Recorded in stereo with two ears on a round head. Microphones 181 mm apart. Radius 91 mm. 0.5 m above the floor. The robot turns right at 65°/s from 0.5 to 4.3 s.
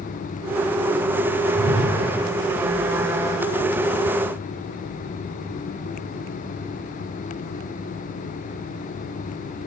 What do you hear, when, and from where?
1.6 s a whoosh: 40° left (ahead or behind), 4 m; by 2.0 s 15° left (ahead or behind), 4 m